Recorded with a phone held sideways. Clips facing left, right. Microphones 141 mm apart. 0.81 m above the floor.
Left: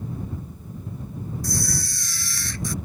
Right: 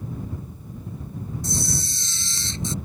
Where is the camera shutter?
25° right (ahead or behind).